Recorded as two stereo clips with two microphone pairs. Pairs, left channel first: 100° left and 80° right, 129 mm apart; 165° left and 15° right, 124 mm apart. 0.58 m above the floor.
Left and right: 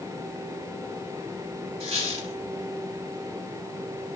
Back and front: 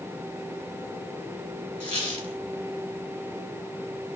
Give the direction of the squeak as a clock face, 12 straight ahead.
4 o'clock.